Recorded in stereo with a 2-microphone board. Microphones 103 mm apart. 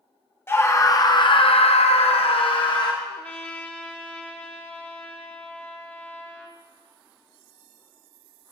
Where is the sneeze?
No sneeze in this recording.